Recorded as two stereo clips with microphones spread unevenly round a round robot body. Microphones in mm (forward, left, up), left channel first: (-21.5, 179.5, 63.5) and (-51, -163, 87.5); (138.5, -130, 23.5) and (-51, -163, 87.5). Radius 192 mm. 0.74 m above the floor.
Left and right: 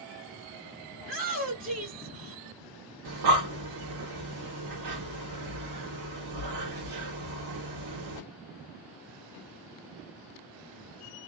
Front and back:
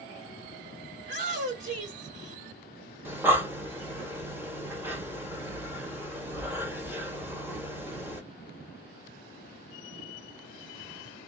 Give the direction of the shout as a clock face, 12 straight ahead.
4 o'clock.